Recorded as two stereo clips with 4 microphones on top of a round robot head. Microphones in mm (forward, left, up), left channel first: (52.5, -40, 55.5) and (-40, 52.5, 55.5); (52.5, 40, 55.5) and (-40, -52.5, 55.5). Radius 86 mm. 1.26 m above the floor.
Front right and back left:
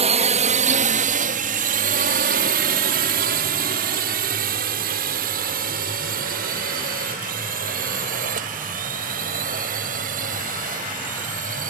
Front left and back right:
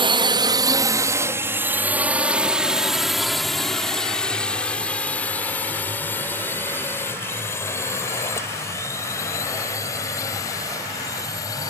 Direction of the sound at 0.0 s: 175° left.